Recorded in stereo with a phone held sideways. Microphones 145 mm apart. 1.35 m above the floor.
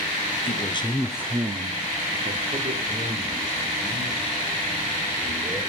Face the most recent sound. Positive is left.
turn(degrees=-70)  # may be behind; listen again after turning